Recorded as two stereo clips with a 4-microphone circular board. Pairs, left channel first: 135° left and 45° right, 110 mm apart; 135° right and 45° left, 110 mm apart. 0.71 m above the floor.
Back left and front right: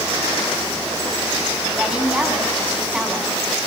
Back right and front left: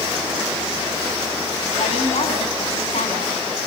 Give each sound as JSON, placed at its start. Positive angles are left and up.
{"t": 1.8, "sound": "a woman speaking", "azimuth_deg": -125, "distance_m": 6.5}